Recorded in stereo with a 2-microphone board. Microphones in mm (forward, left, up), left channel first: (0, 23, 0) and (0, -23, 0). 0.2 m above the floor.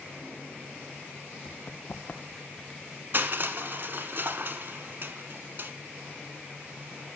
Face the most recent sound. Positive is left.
turn(degrees=-50)  # may be behind; listen again after turning